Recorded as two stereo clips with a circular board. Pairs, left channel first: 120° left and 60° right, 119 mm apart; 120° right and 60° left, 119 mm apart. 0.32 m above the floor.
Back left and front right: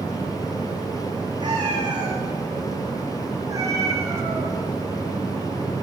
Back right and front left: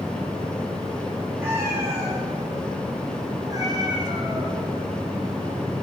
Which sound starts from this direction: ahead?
A cat meowing, at 1.4 s.